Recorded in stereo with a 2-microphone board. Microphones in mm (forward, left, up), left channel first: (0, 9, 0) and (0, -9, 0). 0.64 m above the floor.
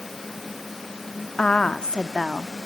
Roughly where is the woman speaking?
Left.